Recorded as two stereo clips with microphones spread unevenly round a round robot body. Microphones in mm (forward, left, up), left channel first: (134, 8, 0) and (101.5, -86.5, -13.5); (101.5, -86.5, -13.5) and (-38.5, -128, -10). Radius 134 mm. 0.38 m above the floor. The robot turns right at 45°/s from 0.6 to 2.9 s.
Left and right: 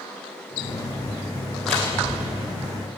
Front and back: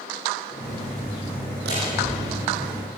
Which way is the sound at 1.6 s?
160° left.